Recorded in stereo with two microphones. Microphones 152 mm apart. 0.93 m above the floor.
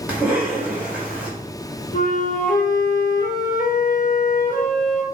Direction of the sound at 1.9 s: 60° left (ahead or behind).